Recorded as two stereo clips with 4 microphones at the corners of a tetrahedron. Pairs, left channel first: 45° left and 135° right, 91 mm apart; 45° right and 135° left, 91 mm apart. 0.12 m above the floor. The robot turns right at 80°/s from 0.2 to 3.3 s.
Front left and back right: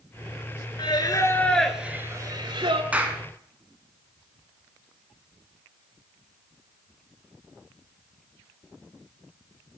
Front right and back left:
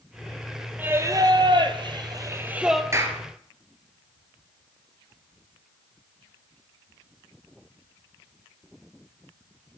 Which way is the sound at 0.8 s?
65° left.